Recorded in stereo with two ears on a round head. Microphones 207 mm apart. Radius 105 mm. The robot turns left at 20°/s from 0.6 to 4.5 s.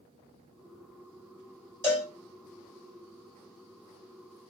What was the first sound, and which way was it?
A cowbell, 10° left (ahead or behind).